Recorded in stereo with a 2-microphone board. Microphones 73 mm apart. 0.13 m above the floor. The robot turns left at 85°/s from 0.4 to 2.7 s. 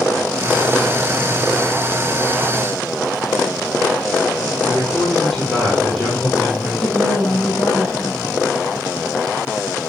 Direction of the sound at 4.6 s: Centre (ahead or behind).